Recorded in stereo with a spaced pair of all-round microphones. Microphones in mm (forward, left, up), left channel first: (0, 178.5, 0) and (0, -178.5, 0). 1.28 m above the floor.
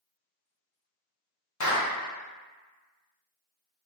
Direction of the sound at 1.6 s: 50° left (ahead or behind).